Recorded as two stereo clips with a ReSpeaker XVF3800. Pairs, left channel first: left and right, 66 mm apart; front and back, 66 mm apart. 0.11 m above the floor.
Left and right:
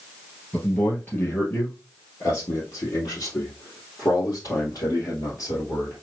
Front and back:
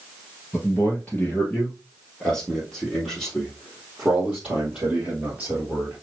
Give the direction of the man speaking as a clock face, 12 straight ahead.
11 o'clock.